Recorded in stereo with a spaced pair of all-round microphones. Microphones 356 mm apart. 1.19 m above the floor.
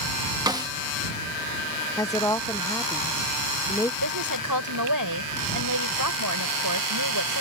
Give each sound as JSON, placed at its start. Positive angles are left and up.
{"t": 0.5, "sound": "a snare drum", "side_deg": -10}
{"t": 2.0, "sound": "a woman speaking", "side_deg": 10}
{"t": 4.0, "sound": "a woman speaking", "side_deg": -70}